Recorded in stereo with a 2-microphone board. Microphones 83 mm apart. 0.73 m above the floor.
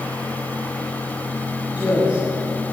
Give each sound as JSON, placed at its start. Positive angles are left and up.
{"t": 1.7, "sound": "a woman speaking", "side_deg": -15, "distance_m": 6.5}